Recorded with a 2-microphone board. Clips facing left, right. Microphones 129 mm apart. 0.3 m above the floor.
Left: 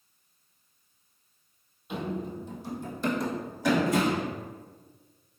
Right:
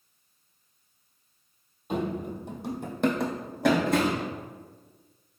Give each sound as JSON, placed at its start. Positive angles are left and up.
{"t": 1.9, "sound": "running footsteps", "side_deg": -45, "distance_m": 0.6}